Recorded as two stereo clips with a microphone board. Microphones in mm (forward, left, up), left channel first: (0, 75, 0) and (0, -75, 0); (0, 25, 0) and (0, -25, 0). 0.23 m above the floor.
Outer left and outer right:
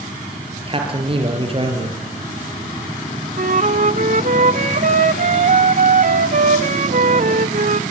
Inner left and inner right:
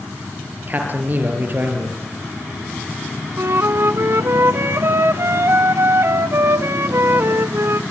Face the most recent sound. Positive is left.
turn(degrees=-60)  # may be behind; listen again after turning